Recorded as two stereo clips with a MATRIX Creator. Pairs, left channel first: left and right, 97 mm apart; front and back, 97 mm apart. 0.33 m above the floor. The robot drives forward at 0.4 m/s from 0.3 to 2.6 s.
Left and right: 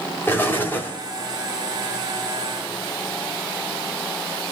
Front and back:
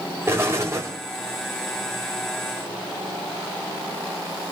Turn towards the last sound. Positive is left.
turn(degrees=160)